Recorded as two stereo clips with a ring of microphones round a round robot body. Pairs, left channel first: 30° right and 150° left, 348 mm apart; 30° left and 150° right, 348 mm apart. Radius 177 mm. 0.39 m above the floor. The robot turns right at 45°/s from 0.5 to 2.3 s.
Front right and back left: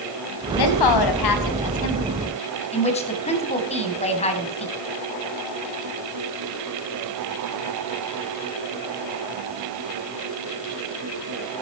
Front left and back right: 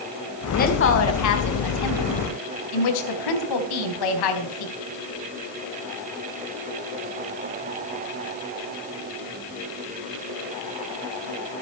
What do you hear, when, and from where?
0.6 s a woman speaking: 35° right, 3.5 m; by 4.7 s 40° left, 3.5 m